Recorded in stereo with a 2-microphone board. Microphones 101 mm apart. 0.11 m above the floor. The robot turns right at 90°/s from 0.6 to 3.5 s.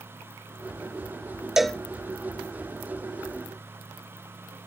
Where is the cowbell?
5° right (ahead or behind); by 1.8 s 10° left (ahead or behind).